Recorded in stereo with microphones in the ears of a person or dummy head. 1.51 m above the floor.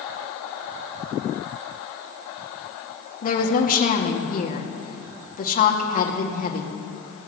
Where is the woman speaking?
40° left (ahead or behind), 2.0 m.